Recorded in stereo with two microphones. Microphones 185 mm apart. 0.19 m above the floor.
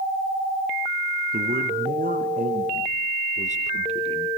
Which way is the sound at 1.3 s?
55° right (ahead or behind).